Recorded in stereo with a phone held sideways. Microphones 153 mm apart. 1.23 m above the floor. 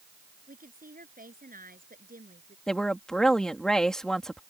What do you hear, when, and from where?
0.5 s a woman speaking: 70° right (ahead or behind)
2.7 s a woman speaking: 5° left (ahead or behind)